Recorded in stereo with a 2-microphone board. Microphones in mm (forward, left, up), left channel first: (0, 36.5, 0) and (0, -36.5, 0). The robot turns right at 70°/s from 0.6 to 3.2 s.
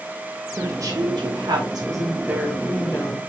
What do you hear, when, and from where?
0.6 s a woman speaking: 140° right, 2.5 m; by 3.2 s 40° left, 2.5 m